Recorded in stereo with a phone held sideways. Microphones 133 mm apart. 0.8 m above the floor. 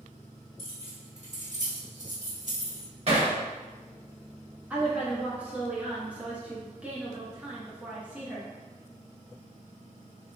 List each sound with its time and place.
0.6 s keys jangling: 50° right (ahead or behind), 1.3 m; by 2.9 s 65° right (ahead or behind), 1.1 m
3.1 s hammering: 50° right (ahead or behind), 1.1 m
4.7 s a woman speaking: 10° right (ahead or behind), 0.6 m